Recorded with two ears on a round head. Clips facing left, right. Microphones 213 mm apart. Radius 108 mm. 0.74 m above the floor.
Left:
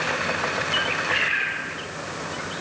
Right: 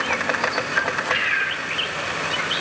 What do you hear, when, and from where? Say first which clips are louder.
0.8 s a bird: right 2 dB; 15° right (ahead or behind), 2 m